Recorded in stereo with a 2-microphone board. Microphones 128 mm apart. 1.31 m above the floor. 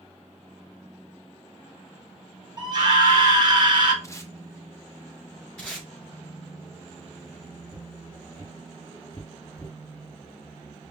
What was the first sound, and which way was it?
A scream, 35° right (ahead or behind).